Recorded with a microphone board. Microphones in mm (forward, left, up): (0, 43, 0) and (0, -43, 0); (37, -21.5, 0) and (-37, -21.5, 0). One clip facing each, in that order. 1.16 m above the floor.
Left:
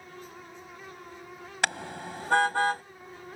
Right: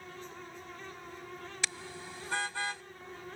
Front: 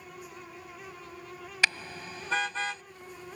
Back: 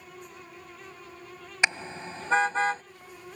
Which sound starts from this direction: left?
A car horn, at 1.6 s.